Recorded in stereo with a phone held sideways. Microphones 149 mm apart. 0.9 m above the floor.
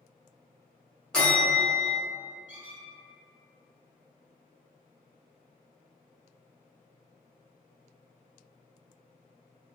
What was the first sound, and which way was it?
A bell, 5° left (ahead or behind).